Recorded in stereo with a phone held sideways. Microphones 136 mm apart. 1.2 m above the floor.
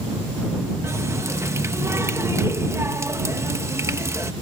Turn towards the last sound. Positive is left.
turn(degrees=-20)  # may be behind; listen again after turning